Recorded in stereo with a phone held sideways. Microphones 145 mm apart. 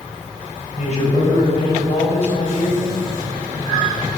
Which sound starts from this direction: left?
A man speaking, at 0.8 s.